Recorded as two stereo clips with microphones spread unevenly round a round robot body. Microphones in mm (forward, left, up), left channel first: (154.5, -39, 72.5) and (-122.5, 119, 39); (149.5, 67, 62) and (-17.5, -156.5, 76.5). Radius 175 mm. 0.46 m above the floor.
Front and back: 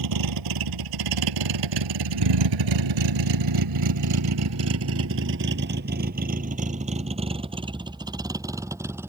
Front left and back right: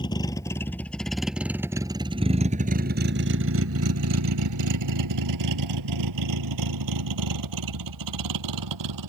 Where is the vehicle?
130° left; by 9.1 s 125° right.